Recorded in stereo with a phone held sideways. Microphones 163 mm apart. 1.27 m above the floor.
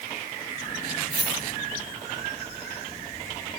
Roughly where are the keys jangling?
Right.